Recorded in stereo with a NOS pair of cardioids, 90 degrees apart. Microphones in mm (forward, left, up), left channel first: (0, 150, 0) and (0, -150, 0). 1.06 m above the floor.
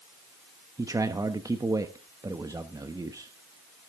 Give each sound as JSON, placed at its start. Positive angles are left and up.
{"t": 0.8, "sound": "a man speaking", "azimuth_deg": -10, "distance_m": 1.0}